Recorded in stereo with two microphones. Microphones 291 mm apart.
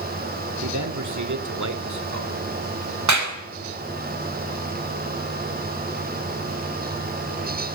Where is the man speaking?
75° right (ahead or behind), 2.5 m; by 2.4 s 60° right (ahead or behind), 3 m.